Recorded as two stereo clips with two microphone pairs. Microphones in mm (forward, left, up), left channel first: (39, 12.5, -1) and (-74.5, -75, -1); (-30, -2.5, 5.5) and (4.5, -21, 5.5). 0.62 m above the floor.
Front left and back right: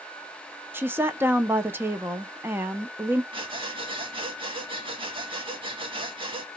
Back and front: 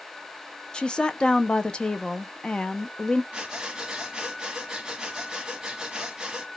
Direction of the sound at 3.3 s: 95° right.